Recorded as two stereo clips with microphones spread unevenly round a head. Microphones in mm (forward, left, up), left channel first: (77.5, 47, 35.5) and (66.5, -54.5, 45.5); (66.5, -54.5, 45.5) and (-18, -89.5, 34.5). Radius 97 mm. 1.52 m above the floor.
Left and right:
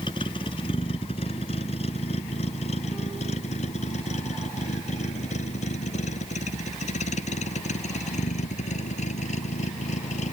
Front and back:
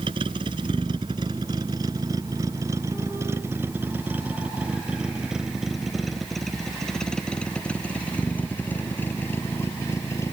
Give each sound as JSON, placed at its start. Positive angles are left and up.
{"t": 0.0, "sound": "a vehicle", "azimuth_deg": 145}